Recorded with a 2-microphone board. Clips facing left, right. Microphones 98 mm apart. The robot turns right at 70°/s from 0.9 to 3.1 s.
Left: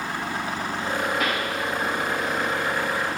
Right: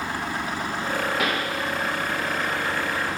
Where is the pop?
80° right, 2.5 m; by 1.5 s 60° right (ahead or behind), 2.5 m.